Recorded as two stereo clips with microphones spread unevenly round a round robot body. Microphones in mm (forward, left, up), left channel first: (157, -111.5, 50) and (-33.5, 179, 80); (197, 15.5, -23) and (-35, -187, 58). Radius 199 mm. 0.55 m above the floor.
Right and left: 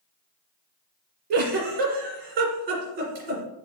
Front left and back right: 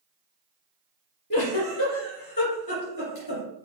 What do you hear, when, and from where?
1.3 s a giggle: 115° left, 2 m